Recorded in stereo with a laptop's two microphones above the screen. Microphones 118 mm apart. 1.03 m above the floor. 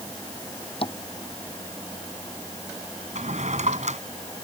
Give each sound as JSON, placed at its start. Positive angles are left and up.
{"t": 0.8, "sound": "tapping", "side_deg": 50}
{"t": 3.1, "sound": "a drawer", "side_deg": -80}